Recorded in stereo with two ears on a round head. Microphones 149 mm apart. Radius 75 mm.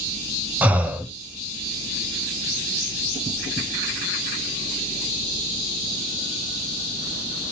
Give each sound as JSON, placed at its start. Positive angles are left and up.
{"t": 0.6, "sound": "breathing", "side_deg": -10, "distance_m": 0.8}